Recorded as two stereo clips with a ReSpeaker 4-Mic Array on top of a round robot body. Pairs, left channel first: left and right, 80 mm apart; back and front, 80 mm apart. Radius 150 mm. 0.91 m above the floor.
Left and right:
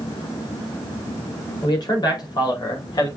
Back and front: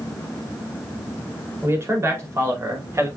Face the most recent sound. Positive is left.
turn(degrees=55)